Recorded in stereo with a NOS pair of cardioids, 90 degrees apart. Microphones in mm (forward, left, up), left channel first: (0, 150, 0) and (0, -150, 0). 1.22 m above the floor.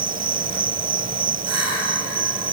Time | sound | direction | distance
0.0 | an insect | 30° right | ?